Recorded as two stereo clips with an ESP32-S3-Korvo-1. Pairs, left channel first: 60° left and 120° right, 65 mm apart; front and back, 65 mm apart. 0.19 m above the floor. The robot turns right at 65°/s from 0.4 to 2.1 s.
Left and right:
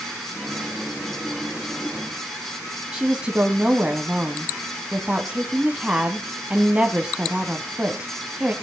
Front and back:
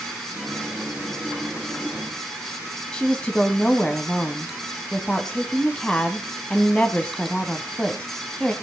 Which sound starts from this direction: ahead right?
A woman speaking, at 2.9 s.